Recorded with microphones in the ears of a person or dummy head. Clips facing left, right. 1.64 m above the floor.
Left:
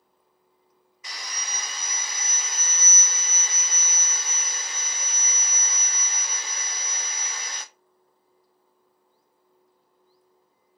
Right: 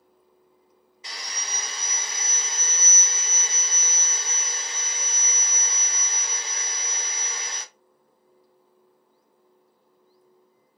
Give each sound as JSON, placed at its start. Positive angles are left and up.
{"t": 1.0, "sound": "sawing", "side_deg": -25, "distance_m": 0.8}